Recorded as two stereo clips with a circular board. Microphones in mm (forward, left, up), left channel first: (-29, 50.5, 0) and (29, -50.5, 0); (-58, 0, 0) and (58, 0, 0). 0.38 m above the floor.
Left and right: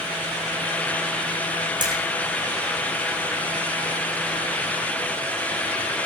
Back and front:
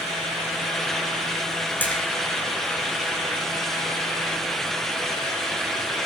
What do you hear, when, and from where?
1.8 s a splash: 105° right, 3 m